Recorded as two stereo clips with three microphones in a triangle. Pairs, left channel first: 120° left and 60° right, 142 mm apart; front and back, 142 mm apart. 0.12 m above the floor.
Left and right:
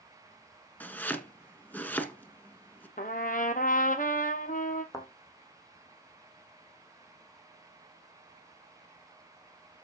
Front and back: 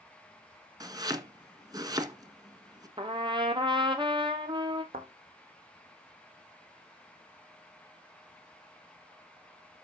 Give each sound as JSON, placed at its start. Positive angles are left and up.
{"t": 0.8, "sound": "chopping", "azimuth_deg": -175, "distance_m": 1.5}
{"t": 3.0, "sound": "a trumpet", "azimuth_deg": 130, "distance_m": 1.3}
{"t": 4.9, "sound": "a thud", "azimuth_deg": -175, "distance_m": 3.0}